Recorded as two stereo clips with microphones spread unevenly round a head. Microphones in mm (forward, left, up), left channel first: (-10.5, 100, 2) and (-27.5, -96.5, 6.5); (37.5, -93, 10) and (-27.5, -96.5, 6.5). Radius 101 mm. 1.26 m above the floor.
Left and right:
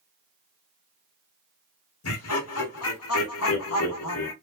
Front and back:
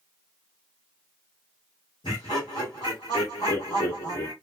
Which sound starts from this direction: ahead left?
Laughter, at 2.0 s.